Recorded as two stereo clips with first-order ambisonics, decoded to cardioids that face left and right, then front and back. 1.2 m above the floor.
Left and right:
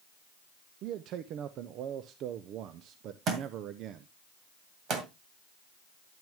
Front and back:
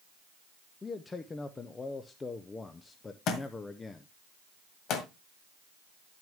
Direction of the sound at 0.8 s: 70° right.